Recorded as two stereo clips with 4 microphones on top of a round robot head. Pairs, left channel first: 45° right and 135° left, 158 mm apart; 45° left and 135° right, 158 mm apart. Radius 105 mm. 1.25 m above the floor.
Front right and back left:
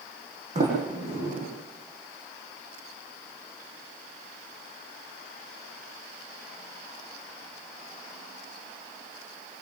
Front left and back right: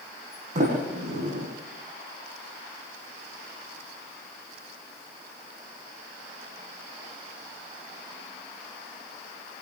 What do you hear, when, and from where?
0.6 s a sliding door: straight behind, 9.5 m